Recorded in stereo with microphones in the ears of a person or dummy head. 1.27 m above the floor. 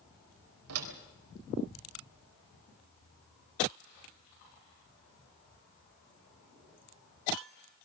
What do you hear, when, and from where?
0.7 s a door slam: 80° right, 3.5 m